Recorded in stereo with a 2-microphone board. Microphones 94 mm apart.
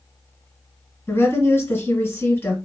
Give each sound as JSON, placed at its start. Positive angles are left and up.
{"t": 1.1, "sound": "a woman speaking", "side_deg": 25, "distance_m": 1.6}